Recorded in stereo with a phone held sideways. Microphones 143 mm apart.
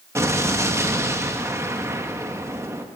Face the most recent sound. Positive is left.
turn(degrees=-20)  # may be behind; listen again after turning